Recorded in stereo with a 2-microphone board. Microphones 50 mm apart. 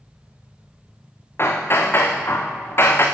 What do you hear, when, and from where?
1.4 s hammering: 50° left (ahead or behind), 3 m